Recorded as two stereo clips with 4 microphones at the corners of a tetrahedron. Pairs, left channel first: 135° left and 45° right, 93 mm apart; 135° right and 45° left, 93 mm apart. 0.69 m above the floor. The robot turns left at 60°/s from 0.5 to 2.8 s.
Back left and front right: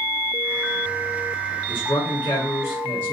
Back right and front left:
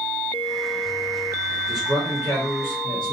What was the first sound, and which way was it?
A man speaking, 130° left.